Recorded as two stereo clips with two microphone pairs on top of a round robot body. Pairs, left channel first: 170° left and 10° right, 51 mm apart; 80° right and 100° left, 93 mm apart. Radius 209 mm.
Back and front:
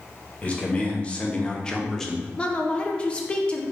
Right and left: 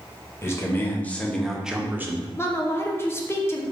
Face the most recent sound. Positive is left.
turn(degrees=-140)